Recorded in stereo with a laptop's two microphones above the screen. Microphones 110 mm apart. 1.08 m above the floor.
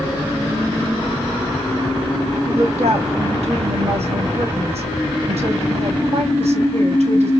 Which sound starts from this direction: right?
A woman speaking, at 2.5 s.